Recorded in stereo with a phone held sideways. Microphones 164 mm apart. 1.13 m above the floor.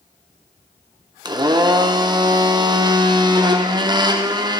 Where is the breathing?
I don't hear breathing.